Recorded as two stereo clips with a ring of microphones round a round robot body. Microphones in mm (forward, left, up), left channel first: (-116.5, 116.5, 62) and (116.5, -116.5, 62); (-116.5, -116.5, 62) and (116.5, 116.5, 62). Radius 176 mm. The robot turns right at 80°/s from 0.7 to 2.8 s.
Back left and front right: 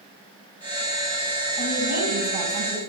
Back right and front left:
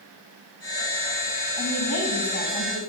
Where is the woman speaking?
130° right, 3.5 m; by 2.8 s 30° right, 3.5 m.